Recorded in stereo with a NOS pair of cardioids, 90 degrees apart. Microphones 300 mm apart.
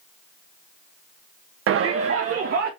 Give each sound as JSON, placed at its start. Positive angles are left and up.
{"t": 1.7, "sound": "a shout", "azimuth_deg": -45, "distance_m": 0.5}